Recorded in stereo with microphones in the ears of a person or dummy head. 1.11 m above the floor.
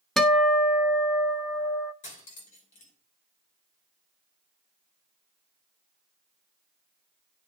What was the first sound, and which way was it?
A guitar, centre (ahead or behind).